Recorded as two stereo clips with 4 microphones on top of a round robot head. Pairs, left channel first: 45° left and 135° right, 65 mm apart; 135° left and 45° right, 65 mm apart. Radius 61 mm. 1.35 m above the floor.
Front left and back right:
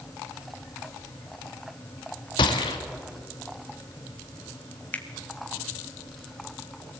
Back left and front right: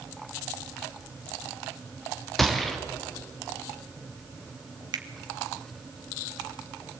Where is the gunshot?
45° left, 1.6 m.